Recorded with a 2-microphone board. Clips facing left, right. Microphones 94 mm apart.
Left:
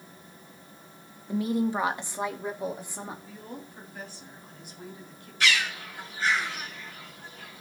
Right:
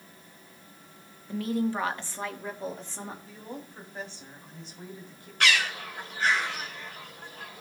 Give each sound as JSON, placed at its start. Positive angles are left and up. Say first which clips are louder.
{"t": 1.3, "sound": "a woman speaking", "louder": "left 2 dB", "side_deg": 20, "distance_m": 0.9}
{"t": 3.2, "sound": "a woman speaking", "louder": "right 1 dB", "side_deg": -30, "distance_m": 4.5}
{"t": 5.4, "sound": "a bird", "louder": "right 1 dB", "side_deg": -65, "distance_m": 1.8}